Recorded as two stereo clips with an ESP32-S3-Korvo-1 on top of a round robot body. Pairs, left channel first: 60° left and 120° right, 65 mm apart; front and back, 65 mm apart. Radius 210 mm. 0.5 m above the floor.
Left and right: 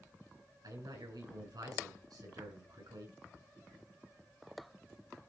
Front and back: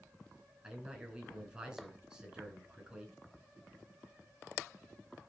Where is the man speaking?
105° right, 4.5 m.